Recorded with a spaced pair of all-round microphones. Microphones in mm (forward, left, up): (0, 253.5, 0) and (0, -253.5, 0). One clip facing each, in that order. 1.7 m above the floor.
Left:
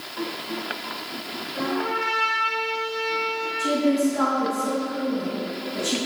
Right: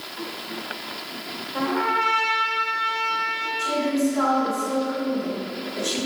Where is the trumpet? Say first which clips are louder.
Right 1 dB; 65° right (ahead or behind), 1.1 m.